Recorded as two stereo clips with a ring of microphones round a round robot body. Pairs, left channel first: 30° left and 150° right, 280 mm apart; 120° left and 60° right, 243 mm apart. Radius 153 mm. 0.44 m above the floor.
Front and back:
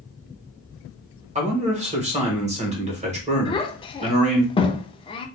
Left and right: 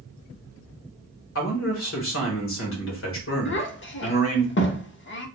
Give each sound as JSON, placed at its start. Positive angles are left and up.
{"t": 1.4, "sound": "a man speaking", "azimuth_deg": 145, "distance_m": 1.4}
{"t": 3.5, "sound": "a child speaking", "azimuth_deg": 100, "distance_m": 0.7}